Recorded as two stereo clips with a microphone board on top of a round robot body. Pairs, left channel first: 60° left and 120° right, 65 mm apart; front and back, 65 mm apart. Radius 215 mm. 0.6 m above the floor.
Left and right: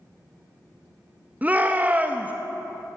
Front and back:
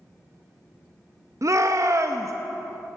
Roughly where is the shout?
Behind.